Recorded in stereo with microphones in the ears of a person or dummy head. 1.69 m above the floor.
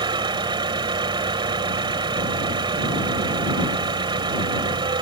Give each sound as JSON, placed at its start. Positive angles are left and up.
{"t": 0.0, "sound": "an engine running", "side_deg": -25}